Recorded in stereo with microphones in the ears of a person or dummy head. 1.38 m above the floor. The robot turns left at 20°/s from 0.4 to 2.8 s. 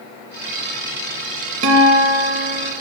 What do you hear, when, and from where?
1.6 s a guitar: 80° right, 1.9 m; by 2.7 s 60° right (ahead or behind), 1.9 m